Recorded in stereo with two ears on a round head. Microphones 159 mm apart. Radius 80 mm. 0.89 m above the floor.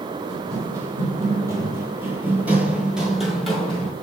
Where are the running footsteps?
15° right (ahead or behind), 1.7 m; by 3.9 s 5° left (ahead or behind), 1.4 m.